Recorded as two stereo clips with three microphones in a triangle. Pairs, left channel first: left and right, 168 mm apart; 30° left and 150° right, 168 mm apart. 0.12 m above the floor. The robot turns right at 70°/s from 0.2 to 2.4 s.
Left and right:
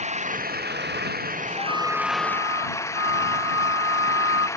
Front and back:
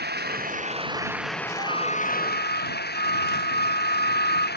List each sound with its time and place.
0.0 s an engine running: 135° right; by 4.6 s 15° left
1.6 s a flute: 150° left; by 4.5 s 155° right